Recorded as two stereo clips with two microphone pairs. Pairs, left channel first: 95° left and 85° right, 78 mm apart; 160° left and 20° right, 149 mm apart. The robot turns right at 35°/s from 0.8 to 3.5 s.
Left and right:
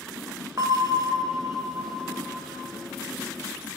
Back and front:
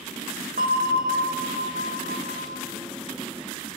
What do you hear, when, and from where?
0.6 s a bell: 45° right, 1.1 m; by 2.6 s 20° left, 1.1 m